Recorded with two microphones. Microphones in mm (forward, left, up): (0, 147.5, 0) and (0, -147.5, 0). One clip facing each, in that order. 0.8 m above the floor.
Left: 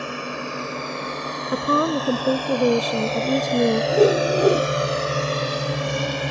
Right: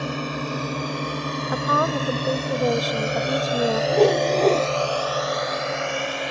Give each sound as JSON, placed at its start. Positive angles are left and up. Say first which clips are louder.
{"t": 0.0, "sound": "a drone", "louder": "right 2 dB", "side_deg": -45}
{"t": 1.5, "sound": "a woman speaking", "louder": "left 4 dB", "side_deg": 30}
{"t": 3.9, "sound": "a whoosh", "louder": "even", "side_deg": 10}